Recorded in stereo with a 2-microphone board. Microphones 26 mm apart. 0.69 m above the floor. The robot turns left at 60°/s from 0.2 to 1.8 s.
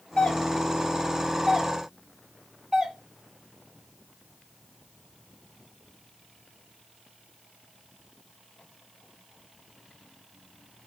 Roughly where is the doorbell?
Left.